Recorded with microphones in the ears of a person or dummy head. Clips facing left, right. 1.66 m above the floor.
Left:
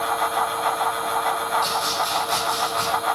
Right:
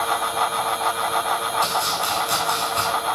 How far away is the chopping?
About 4 m.